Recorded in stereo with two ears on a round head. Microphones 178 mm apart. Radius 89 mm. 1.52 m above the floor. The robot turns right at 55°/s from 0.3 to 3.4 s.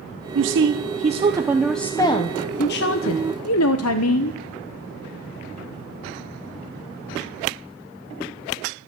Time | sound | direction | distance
0.3 | a woman speaking | 75° right | 0.9 m